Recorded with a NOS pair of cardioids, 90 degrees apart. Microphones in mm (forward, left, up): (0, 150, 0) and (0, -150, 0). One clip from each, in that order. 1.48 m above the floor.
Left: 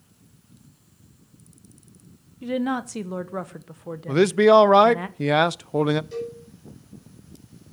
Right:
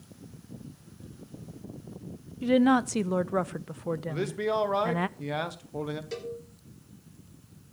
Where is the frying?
I don't hear frying.